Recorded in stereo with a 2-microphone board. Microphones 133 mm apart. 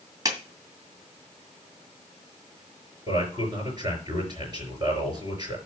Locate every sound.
0.2 s a clap: 30° right (ahead or behind), 1.9 m
3.1 s a man speaking: 30° right (ahead or behind), 5 m